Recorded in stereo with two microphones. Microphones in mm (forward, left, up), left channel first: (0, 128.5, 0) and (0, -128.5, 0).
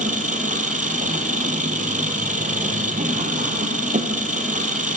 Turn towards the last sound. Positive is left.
turn(degrees=-30)  # may be behind; listen again after turning